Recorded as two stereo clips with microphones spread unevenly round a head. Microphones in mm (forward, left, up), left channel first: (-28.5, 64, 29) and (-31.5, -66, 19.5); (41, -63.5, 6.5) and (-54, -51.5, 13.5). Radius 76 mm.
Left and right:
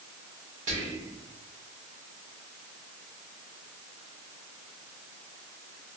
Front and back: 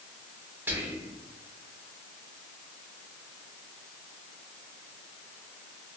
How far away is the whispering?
About 1.9 m.